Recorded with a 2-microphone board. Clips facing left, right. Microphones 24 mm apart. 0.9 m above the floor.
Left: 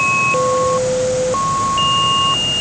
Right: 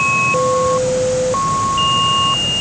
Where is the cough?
I don't hear a cough.